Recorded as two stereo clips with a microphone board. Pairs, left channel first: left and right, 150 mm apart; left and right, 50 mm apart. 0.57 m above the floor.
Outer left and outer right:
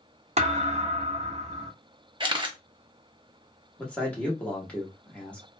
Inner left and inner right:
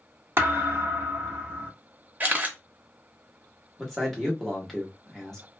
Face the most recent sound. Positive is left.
turn(degrees=10)  # may be behind; listen again after turning